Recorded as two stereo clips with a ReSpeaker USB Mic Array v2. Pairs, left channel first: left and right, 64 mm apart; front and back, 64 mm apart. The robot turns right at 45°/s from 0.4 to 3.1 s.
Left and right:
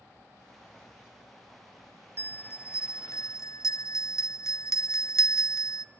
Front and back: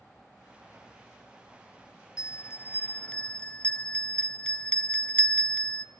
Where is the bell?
30° left, 0.7 m; by 5.8 s 70° left, 0.7 m.